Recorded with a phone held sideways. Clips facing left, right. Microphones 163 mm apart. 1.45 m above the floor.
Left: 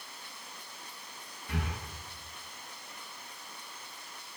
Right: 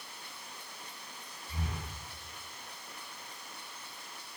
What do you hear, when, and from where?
1.5 s breathing: 75° left (ahead or behind), 5.5 m